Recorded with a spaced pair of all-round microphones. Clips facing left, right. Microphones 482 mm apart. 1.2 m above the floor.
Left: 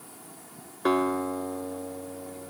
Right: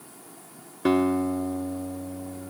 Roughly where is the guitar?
Right.